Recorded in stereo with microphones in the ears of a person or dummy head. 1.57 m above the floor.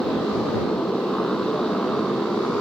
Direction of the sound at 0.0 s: 10° left (ahead or behind).